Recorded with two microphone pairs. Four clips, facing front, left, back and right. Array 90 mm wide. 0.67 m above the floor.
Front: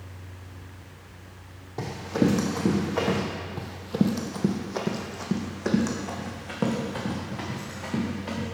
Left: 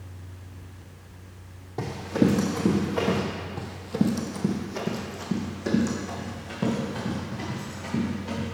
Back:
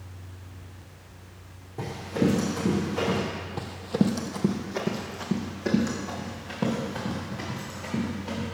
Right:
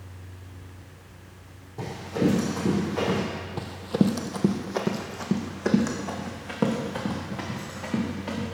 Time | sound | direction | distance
1.8 | running footsteps | 35° left | 2 m
3.6 | running footsteps | 140° right | 0.8 m